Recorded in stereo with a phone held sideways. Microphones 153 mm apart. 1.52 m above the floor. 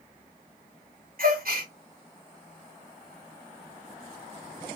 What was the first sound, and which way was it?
A gasp, 70° right (ahead or behind).